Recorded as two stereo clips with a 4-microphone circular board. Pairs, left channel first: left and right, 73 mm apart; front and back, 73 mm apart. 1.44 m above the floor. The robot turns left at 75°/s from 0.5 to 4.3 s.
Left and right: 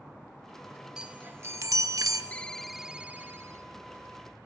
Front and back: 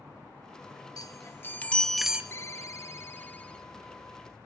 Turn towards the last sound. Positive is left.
turn(degrees=-120)